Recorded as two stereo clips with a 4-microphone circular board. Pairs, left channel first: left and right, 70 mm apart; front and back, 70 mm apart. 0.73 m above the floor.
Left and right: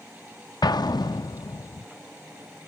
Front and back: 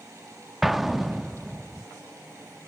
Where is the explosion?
90° left.